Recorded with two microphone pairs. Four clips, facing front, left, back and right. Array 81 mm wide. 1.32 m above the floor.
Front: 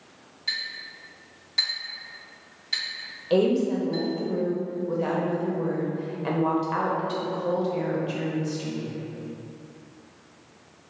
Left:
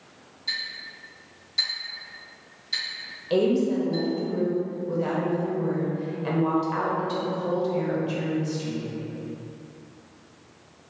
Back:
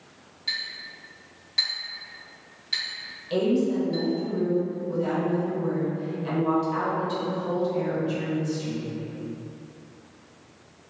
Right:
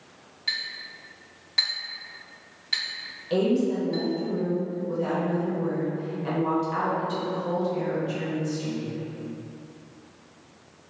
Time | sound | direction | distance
0.5 | a clink | 90° right | 1.5 m
3.3 | a woman speaking | 15° left | 0.8 m